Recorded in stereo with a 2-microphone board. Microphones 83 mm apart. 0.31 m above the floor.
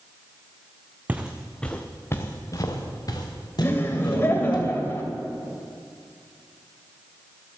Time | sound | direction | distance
1.1 | footsteps | 20° right (ahead or behind) | 1.2 m
3.6 | laughter | 30° left (ahead or behind) | 1.5 m